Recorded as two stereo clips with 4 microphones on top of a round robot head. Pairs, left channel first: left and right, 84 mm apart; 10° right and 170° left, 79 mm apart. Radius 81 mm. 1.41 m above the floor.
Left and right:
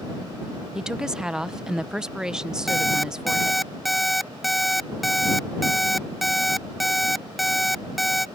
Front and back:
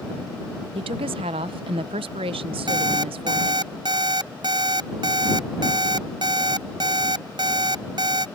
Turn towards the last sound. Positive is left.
turn(degrees=180)